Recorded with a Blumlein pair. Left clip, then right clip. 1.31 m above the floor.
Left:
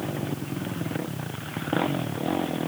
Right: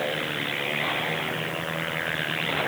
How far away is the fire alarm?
No fire alarm in this recording.